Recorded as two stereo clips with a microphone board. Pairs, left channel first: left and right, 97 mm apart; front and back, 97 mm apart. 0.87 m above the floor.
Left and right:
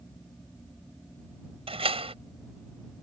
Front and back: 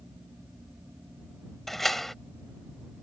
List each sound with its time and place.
1.7 s a door slam: 90° right